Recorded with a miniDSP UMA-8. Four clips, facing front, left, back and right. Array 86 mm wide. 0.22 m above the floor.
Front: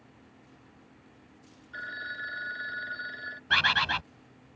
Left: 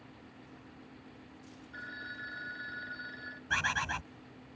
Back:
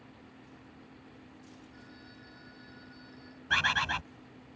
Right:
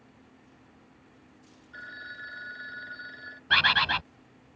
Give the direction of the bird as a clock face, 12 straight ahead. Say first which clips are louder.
Right 8 dB, front 3 dB; 2 o'clock.